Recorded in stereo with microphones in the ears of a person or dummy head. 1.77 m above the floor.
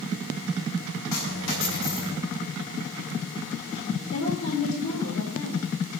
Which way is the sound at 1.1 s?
65° left (ahead or behind).